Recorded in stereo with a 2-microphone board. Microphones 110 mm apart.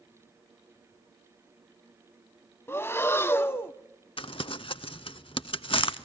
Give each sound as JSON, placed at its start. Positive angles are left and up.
{"t": 2.7, "sound": "breathing", "side_deg": 25, "distance_m": 0.5}
{"t": 4.2, "sound": "crumpling", "side_deg": 55, "distance_m": 0.5}